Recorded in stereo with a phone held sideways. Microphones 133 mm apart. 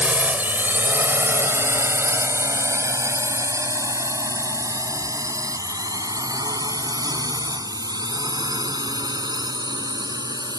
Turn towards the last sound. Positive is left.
turn(degrees=-30)  # may be behind; listen again after turning